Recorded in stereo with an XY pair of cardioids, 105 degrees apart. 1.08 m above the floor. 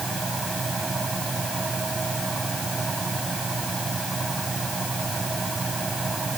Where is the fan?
25° right.